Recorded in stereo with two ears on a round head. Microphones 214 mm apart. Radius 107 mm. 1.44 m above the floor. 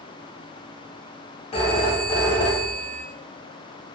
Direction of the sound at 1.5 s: 25° left (ahead or behind).